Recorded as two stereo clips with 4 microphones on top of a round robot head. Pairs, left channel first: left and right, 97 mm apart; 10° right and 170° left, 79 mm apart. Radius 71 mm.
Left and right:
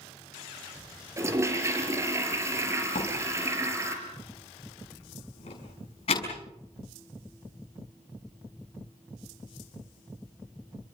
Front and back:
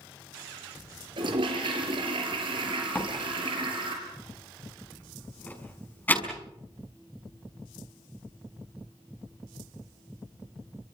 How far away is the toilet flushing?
About 4.5 m.